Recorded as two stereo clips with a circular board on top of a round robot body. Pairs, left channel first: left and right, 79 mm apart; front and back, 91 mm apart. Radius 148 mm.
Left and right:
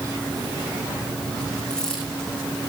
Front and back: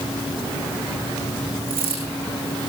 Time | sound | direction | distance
1.7 | a dropped coin | 175° left | 8 m